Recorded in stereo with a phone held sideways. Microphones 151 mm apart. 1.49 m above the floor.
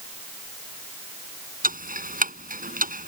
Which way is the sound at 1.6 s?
65° right (ahead or behind).